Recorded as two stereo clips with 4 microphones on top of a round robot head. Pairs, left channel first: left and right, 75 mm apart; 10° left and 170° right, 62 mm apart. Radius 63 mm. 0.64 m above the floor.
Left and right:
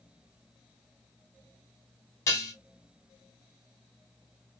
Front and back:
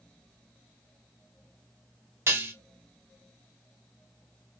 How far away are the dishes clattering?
About 0.9 m.